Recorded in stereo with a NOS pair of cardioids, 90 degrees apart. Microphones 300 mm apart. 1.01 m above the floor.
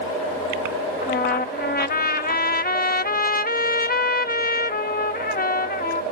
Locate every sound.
1.0 s a trumpet: 30° left